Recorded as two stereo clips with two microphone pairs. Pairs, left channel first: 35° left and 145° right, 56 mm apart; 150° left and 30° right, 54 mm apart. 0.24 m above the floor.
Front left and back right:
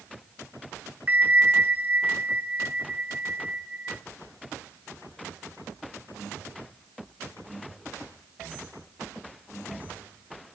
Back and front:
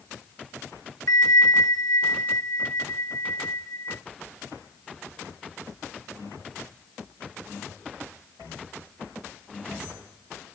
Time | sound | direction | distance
1.1 | a bell | 155° left | 0.8 m